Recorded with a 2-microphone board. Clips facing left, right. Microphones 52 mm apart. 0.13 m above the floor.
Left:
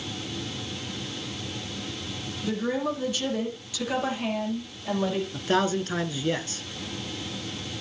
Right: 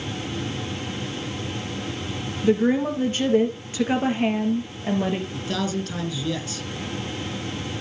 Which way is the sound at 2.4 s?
40° right (ahead or behind).